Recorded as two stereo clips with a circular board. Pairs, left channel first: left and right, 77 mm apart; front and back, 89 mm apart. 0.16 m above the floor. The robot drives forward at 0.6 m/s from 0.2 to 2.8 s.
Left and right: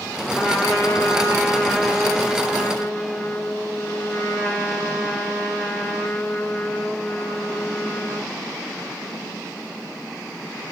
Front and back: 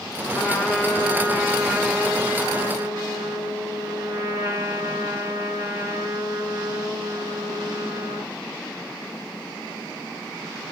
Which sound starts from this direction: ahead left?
A trumpet, at 0.3 s.